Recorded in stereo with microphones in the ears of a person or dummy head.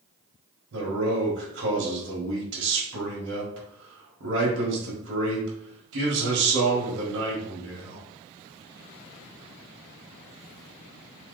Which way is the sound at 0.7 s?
80° right.